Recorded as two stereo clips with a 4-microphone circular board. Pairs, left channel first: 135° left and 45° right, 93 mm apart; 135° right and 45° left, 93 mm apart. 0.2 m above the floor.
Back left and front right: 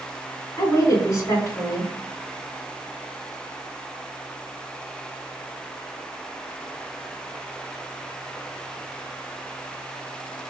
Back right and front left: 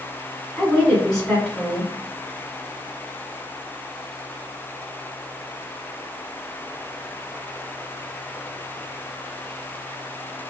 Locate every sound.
0.6 s a woman speaking: 145° left, 1.5 m